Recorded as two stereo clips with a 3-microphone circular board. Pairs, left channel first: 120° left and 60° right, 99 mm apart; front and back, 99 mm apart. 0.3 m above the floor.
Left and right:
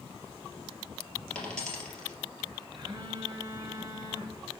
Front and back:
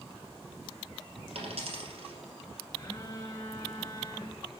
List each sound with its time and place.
1.4 s a dropped coin: 160° right, 2.5 m
2.8 s a phone buzzing: 45° right, 2 m